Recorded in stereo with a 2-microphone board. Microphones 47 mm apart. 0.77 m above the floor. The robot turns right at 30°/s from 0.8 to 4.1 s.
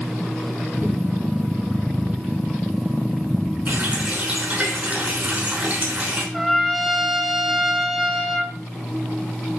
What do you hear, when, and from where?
3.7 s a running tap: 45° right (ahead or behind), 5.5 m; by 6.2 s 35° right (ahead or behind), 5.5 m
6.3 s a trumpet: centre (ahead or behind), 1.6 m